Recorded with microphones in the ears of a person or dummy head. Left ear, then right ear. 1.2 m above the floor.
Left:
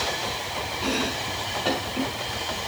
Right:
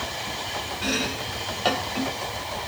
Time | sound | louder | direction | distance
0.8 | chopping | even | 45° right (ahead or behind) | 3 m